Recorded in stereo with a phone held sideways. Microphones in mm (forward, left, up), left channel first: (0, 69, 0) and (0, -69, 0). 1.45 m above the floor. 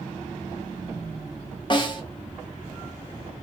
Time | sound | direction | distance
1.7 | a snare drum | 35° left (ahead or behind) | 0.6 m